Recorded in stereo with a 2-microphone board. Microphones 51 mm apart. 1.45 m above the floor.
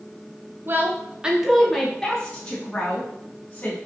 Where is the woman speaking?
45° right (ahead or behind), 0.6 m; by 3.8 s 30° left (ahead or behind), 1.6 m.